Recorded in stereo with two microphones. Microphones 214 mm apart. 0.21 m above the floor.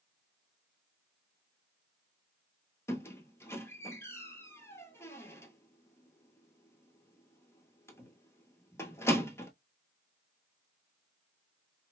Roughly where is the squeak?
Centre.